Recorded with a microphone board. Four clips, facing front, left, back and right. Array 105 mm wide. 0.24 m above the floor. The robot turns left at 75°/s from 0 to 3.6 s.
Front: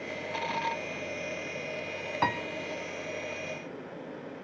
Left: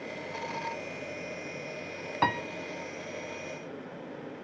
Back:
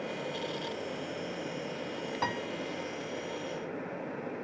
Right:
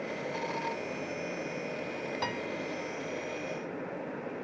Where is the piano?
60° left, 0.6 m; by 2.4 s 45° left, 0.6 m.